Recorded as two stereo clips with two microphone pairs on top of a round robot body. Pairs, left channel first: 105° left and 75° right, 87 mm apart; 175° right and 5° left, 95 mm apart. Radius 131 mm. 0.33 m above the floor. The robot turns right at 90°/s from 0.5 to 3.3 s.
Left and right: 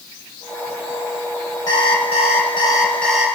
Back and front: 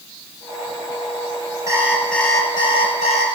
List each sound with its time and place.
1.7 s an alarm clock: 60° left, 4.5 m; by 3.3 s 155° right, 4.5 m